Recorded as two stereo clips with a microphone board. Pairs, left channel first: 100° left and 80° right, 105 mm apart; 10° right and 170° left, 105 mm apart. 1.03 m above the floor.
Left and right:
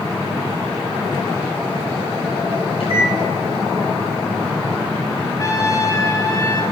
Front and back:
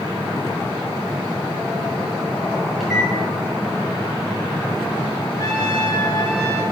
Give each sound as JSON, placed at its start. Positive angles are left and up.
{"t": 2.8, "sound": "a microwave", "azimuth_deg": 80, "distance_m": 3.5}
{"t": 5.4, "sound": "a trumpet", "azimuth_deg": 45, "distance_m": 1.7}